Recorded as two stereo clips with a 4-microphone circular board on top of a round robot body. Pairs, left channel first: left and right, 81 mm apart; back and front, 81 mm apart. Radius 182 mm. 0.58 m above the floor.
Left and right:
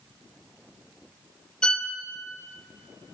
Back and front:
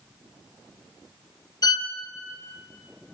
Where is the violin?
165° left, 0.7 m.